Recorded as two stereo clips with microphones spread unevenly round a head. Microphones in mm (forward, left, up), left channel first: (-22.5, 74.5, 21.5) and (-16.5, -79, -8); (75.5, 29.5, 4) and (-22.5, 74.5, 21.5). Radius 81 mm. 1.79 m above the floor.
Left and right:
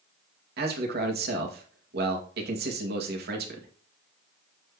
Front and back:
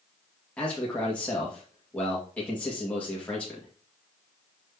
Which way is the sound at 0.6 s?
110° right.